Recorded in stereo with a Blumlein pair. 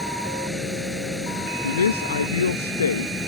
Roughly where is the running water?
Ahead.